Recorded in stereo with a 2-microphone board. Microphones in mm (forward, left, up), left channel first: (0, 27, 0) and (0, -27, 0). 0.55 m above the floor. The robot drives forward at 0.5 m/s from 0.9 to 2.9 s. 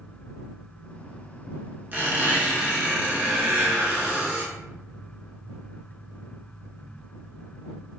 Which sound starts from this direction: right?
A squeak, at 1.9 s.